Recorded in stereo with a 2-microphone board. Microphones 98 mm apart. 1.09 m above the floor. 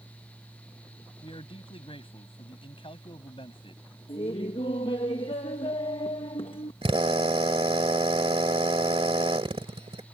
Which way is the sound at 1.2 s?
65° left (ahead or behind).